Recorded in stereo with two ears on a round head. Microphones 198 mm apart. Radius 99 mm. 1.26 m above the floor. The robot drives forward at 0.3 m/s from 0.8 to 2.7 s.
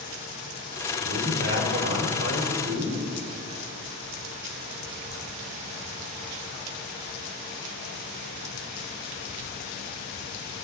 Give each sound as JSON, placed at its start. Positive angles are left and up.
{"t": 1.0, "sound": "a man speaking", "side_deg": -55, "distance_m": 4.0}